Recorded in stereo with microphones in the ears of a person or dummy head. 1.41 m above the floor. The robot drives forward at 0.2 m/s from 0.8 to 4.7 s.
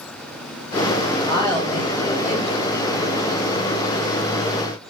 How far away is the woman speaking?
About 0.8 m.